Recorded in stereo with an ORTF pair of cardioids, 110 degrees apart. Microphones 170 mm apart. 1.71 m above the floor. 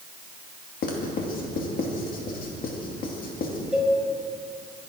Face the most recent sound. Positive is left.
turn(degrees=-5)